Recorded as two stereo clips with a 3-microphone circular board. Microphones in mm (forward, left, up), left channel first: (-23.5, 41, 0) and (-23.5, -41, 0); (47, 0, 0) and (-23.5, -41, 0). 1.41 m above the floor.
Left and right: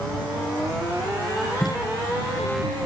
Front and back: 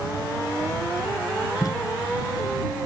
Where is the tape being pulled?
65° left.